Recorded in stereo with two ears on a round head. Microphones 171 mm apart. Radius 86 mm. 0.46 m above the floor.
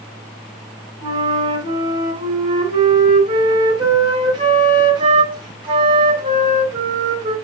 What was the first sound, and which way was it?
A flute, 25° right (ahead or behind).